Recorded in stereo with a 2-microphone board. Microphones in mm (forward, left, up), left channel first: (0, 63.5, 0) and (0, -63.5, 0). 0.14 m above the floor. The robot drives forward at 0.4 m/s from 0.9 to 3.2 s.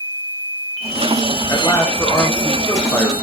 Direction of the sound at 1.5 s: 25° left (ahead or behind).